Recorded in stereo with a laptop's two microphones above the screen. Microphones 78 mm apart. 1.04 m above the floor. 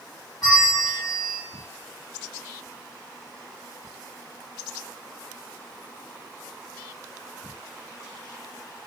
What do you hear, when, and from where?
0.4 s a bell: 60° left (ahead or behind), 1.4 m